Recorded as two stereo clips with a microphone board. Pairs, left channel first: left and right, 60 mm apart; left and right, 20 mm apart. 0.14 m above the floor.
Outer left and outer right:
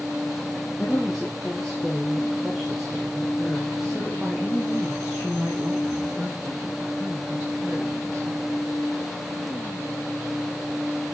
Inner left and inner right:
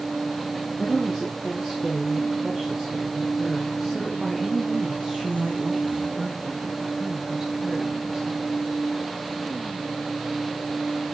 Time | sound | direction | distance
0.8 | a woman speaking | 5° left (ahead or behind) | 3.5 m